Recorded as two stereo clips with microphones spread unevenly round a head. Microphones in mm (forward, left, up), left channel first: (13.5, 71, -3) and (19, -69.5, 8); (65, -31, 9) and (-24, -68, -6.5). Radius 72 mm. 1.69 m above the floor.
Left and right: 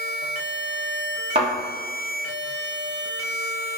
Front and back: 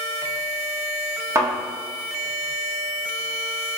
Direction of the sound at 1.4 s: 105° right.